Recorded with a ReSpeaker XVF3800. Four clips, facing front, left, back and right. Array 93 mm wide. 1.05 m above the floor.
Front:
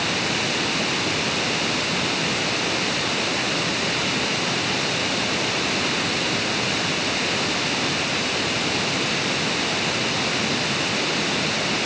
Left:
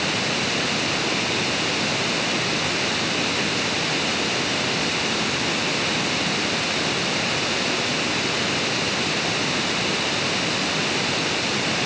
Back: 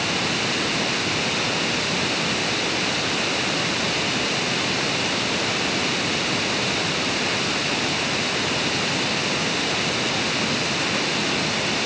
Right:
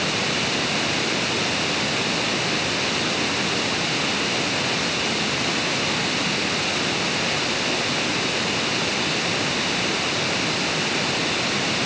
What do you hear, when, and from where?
Only background noise.